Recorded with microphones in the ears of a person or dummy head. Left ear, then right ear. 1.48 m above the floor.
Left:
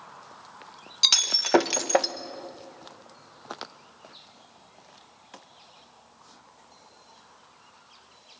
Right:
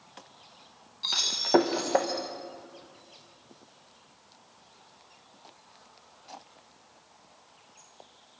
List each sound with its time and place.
1.0 s breaking glass: 45° left (ahead or behind), 0.7 m